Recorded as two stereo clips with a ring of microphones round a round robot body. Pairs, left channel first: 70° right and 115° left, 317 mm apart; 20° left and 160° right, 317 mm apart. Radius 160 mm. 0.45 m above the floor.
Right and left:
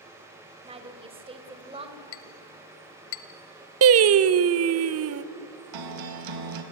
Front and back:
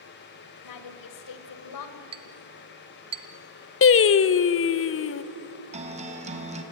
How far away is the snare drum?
I don't hear a snare drum.